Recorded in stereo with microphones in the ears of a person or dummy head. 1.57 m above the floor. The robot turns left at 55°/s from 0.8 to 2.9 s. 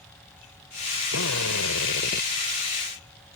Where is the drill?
115° left; by 2.3 s 50° left.